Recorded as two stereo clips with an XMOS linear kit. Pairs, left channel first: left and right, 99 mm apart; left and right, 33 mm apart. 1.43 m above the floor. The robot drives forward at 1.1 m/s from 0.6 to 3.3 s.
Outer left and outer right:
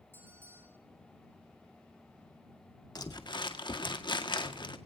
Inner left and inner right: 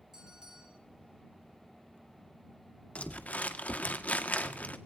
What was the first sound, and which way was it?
A bell, 25° right (ahead or behind).